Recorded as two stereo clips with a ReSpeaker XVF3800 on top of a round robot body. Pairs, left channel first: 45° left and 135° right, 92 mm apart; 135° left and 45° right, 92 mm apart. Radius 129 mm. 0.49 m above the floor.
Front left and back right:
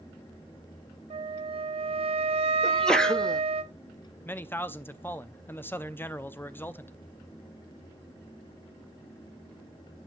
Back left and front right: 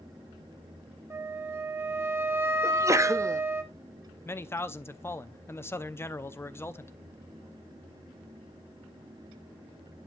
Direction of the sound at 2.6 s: 30° right.